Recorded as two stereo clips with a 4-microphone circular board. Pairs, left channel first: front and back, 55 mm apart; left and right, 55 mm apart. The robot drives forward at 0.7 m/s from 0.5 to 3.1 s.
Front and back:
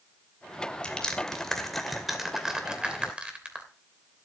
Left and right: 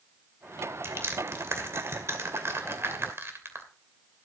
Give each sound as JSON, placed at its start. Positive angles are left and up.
{"t": 0.8, "sound": "crushing", "azimuth_deg": -70, "distance_m": 2.5}